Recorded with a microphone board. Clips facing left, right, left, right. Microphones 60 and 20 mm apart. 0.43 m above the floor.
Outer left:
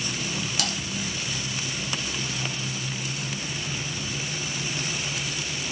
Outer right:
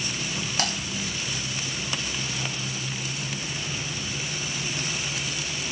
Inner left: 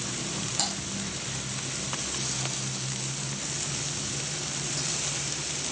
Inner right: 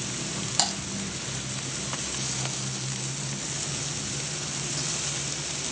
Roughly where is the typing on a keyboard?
Right.